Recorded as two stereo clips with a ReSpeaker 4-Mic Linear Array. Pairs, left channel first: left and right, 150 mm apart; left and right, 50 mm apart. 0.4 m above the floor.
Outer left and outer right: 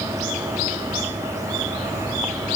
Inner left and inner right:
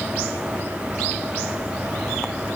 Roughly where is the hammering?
I don't hear hammering.